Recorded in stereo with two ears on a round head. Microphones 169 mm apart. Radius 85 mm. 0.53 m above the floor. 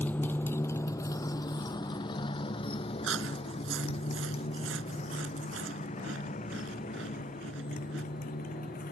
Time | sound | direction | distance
0.0 | a motorcycle | 10° left (ahead or behind) | ?
3.0 | chewing | 80° right | ?